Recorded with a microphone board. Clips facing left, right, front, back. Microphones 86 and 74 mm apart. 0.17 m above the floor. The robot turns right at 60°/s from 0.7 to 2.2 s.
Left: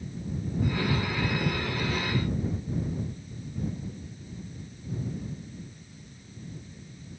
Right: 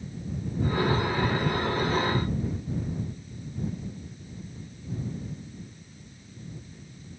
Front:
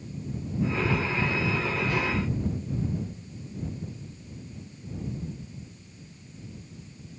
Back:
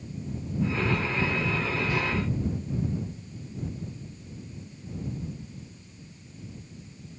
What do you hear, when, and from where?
Only background noise.